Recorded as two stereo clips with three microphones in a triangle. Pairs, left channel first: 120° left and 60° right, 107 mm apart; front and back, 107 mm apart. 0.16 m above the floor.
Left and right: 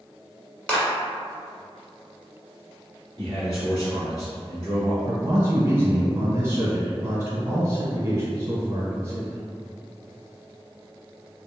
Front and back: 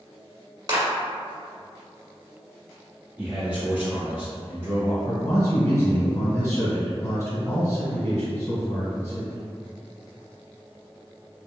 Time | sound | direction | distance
0.7 | a clap | 165° right | 1.2 m
3.2 | a man speaking | 120° left | 1.5 m
5.0 | a man speaking | 30° right | 1.2 m